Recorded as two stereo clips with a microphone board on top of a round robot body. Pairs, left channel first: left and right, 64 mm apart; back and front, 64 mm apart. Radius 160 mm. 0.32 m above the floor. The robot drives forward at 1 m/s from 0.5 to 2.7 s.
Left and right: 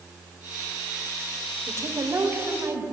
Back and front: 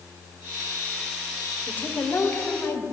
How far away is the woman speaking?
About 2 m.